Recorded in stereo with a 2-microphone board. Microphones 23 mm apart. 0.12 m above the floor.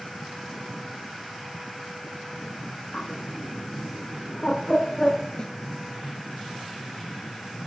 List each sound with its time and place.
2.9 s a bird: 20° left (ahead or behind), 1.7 m
5.4 s a snare drum: 35° left (ahead or behind), 1.4 m